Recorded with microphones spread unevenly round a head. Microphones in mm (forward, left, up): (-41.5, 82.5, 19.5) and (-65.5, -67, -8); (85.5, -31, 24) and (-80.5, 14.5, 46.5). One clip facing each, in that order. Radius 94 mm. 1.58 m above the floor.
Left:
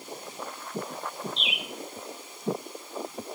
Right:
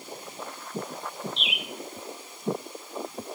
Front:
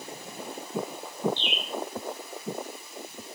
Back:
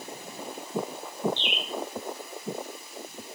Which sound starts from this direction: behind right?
A bird, at 1.4 s.